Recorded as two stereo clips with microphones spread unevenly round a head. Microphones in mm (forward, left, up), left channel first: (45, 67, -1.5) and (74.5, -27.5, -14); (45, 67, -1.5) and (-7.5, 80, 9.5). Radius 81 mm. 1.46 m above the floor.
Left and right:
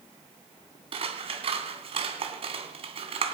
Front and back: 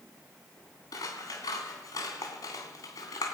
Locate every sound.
0.9 s scissors: 55° right, 2.5 m